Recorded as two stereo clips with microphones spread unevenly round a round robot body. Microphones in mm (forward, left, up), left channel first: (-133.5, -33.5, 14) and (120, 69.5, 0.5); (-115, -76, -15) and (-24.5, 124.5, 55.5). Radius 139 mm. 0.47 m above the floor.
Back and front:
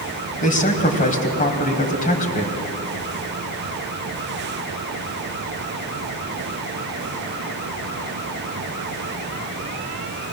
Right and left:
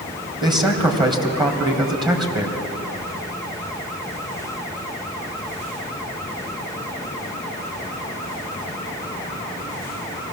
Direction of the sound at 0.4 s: 140° left.